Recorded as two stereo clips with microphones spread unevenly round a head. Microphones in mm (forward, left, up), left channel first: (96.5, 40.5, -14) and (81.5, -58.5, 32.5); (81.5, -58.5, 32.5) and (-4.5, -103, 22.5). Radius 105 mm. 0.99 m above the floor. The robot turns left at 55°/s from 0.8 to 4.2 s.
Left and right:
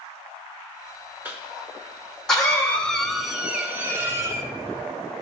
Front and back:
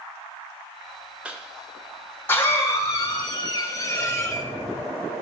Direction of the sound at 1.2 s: 150° left.